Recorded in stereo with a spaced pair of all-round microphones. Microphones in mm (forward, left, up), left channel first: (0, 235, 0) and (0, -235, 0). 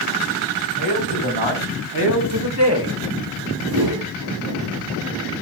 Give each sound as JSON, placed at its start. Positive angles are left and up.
{"t": 0.8, "sound": "a man speaking", "side_deg": -75, "distance_m": 2.5}
{"t": 3.7, "sound": "a whoosh", "side_deg": -55, "distance_m": 0.9}